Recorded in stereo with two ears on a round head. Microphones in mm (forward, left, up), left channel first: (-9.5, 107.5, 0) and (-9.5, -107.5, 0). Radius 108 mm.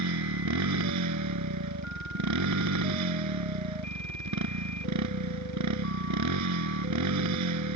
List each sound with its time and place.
0.0 s a motorcycle: 85° right